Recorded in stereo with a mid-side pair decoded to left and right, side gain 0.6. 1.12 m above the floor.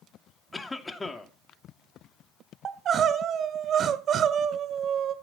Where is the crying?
45° right, 1.7 m.